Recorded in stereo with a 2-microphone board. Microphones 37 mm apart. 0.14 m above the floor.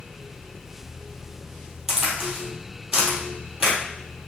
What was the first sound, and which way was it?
A crack, 10° right (ahead or behind).